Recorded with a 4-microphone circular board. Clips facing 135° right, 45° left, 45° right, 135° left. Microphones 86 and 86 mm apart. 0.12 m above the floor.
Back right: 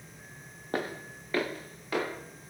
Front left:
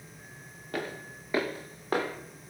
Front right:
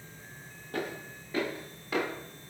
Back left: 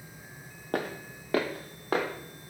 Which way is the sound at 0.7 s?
170° left.